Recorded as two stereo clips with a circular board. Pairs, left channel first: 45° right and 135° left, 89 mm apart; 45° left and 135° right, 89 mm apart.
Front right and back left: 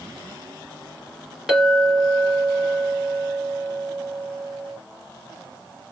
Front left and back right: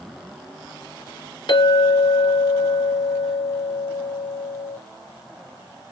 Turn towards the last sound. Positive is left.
turn(degrees=55)